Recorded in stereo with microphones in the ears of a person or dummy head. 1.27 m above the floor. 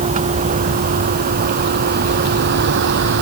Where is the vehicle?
35° right (ahead or behind); by 3.2 s 55° right (ahead or behind).